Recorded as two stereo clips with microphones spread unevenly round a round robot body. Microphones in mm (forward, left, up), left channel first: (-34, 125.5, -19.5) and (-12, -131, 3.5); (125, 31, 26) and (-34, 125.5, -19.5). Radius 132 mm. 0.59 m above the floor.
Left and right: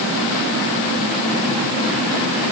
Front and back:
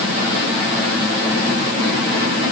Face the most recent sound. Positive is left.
No sound to turn to.